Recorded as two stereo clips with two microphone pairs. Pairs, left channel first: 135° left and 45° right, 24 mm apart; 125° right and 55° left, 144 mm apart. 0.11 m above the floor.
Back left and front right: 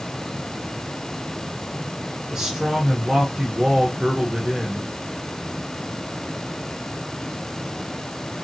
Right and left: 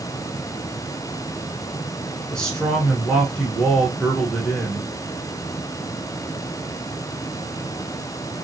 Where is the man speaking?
45° right, 1.1 m.